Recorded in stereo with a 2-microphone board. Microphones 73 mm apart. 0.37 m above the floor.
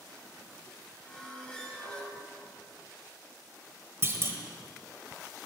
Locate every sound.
1.1 s a squeak: 10° left (ahead or behind), 1.6 m
4.0 s a clunk: 40° right (ahead or behind), 1.0 m